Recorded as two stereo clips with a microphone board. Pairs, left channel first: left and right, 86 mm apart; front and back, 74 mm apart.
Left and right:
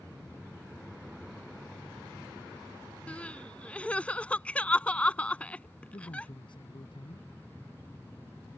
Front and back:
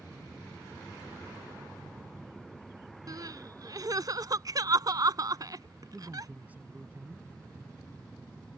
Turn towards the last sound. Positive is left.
turn(degrees=110)